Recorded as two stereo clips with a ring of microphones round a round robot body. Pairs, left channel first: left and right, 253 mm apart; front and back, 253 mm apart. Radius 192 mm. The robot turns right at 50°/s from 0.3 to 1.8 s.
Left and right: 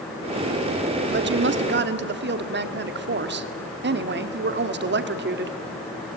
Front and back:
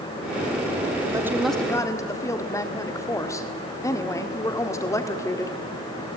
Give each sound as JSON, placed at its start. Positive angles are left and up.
{"t": 1.1, "sound": "a woman speaking", "azimuth_deg": -110, "distance_m": 1.5}